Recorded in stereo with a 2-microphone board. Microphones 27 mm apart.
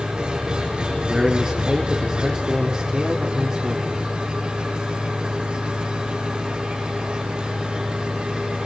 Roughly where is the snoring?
No snoring in this recording.